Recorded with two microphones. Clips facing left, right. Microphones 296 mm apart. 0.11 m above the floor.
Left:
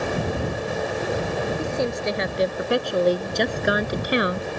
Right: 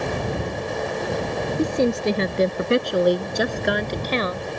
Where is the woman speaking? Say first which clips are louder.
Right 5 dB; 45° right (ahead or behind); by 4.5 s 20° left (ahead or behind).